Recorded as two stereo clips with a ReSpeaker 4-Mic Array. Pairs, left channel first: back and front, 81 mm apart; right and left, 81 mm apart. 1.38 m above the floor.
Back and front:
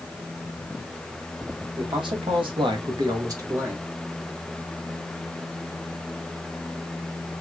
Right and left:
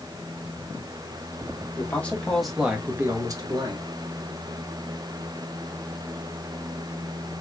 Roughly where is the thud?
I don't hear a thud.